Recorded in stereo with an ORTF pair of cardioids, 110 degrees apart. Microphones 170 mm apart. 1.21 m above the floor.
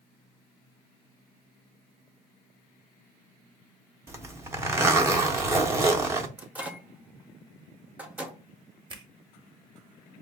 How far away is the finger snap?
About 0.8 m.